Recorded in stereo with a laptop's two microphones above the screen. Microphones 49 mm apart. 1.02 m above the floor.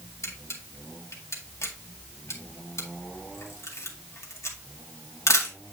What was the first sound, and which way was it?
A camera shutter, 75° left (ahead or behind).